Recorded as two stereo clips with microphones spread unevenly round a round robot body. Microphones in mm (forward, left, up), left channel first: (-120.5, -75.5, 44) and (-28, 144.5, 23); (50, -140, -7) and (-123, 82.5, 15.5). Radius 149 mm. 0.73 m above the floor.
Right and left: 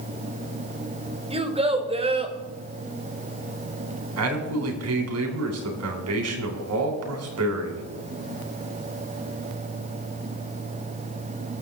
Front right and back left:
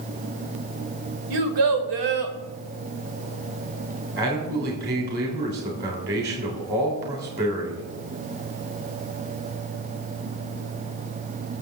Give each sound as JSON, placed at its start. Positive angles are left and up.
{"t": 1.3, "sound": "a child speaking", "azimuth_deg": 135, "distance_m": 2.5}
{"t": 4.2, "sound": "a man speaking", "azimuth_deg": 70, "distance_m": 3.5}